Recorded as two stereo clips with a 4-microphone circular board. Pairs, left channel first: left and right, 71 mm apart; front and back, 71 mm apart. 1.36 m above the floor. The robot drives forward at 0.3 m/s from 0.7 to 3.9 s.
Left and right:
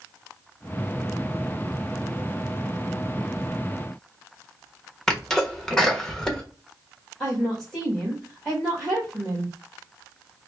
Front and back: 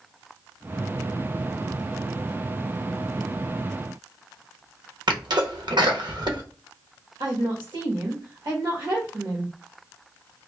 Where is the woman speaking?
175° left, 1.5 m.